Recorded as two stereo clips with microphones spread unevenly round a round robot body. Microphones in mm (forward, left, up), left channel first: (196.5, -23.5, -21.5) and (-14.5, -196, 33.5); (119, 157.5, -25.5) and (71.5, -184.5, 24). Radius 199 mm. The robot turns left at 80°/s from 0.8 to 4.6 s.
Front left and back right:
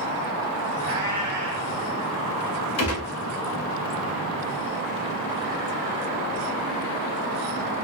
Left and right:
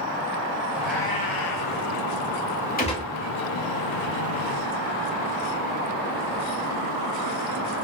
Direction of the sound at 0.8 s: 175° right.